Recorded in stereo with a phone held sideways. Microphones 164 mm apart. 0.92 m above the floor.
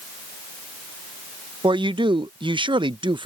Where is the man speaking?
30° right (ahead or behind).